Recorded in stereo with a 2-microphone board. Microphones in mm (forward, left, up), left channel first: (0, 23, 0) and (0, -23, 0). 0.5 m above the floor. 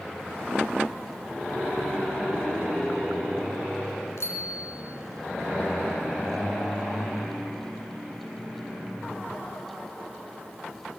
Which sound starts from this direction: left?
A bicycle bell, at 4.2 s.